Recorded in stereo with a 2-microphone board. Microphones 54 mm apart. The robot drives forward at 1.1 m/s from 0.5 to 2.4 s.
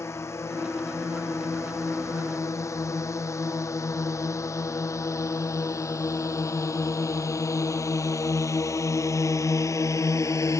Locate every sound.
0.0 s a drone: 55° left (ahead or behind); by 10.6 s 70° left (ahead or behind)